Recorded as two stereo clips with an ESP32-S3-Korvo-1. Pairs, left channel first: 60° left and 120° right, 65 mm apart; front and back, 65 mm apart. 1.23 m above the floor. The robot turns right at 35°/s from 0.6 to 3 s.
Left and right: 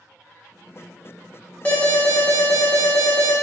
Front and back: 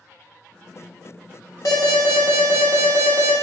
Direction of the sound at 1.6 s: 5° right.